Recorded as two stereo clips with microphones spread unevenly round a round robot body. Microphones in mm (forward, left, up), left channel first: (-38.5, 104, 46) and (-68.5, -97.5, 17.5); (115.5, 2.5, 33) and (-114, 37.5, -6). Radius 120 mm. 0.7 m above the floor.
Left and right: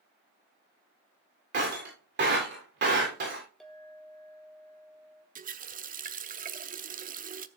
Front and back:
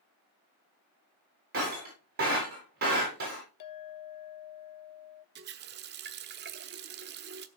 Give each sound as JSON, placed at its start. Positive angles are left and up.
{"t": 1.5, "sound": "breaking glass", "azimuth_deg": -135, "distance_m": 8.0}
{"t": 3.6, "sound": "a clink", "azimuth_deg": -10, "distance_m": 0.9}
{"t": 5.3, "sound": "a running tap", "azimuth_deg": -145, "distance_m": 0.9}